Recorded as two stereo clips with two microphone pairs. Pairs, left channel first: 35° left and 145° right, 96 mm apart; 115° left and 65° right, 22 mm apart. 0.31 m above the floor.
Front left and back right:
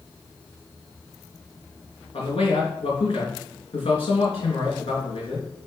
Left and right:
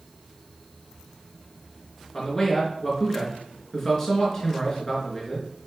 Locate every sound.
2.1 s a man speaking: 35° left, 3.5 m